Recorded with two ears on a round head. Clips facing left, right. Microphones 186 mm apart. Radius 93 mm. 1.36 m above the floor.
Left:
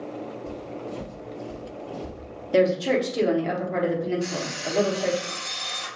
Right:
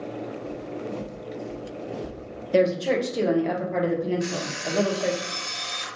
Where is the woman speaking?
Centre (ahead or behind), 1.1 m.